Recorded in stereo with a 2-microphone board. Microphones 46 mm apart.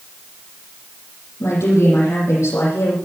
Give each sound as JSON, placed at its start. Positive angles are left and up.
{"t": 1.4, "sound": "a woman speaking", "side_deg": 70, "distance_m": 7.5}